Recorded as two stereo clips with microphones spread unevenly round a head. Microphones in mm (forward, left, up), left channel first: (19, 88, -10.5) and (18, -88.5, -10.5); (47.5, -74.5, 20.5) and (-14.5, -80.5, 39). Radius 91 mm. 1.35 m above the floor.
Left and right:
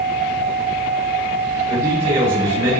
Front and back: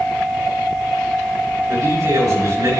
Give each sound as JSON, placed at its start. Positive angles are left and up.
{"t": 1.7, "sound": "a man speaking", "azimuth_deg": -150, "distance_m": 3.5}